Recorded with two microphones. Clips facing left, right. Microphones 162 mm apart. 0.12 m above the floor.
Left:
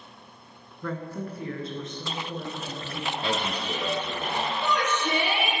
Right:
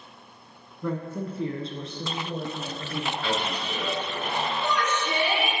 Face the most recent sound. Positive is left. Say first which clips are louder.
# left 1 dB
turn(degrees=65)  # may be behind; listen again after turning